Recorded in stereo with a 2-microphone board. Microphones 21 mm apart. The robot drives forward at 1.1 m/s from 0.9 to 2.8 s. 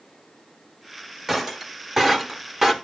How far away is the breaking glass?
About 1.9 m.